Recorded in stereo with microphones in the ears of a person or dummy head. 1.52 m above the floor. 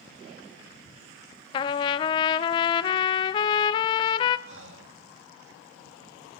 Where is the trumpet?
25° left (ahead or behind), 0.7 m.